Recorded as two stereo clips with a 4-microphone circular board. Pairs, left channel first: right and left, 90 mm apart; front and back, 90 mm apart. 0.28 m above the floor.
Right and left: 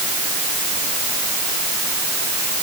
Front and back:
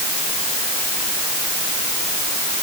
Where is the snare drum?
I don't hear a snare drum.